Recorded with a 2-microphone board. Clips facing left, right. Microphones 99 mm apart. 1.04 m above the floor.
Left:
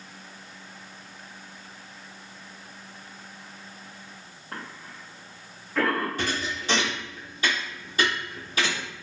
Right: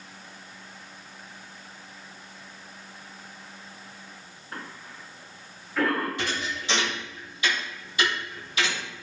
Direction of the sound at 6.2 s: 40° left (ahead or behind).